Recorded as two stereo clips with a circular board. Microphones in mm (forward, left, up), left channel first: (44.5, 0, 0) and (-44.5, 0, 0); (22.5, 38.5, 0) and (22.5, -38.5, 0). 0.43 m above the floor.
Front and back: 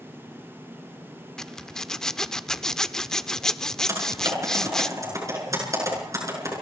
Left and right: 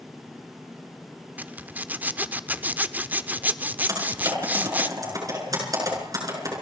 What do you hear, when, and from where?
1.4 s a zipper: 75° right, 0.8 m
3.9 s typing on a keyboard: 125° right, 7 m